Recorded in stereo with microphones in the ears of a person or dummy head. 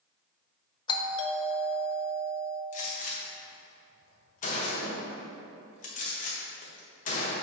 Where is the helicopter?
No helicopter in this recording.